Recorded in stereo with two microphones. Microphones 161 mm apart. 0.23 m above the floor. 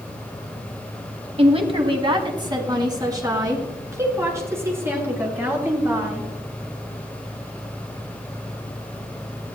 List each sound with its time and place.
1.4 s a woman speaking: 40° right (ahead or behind), 1.4 m; by 6.3 s 10° right (ahead or behind), 3.5 m